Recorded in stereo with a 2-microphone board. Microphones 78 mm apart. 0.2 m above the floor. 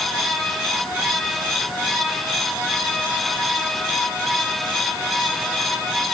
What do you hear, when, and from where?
Only background noise.